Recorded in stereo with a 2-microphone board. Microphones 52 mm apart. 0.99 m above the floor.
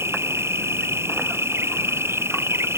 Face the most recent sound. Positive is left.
turn(degrees=-55)  # may be behind; listen again after turning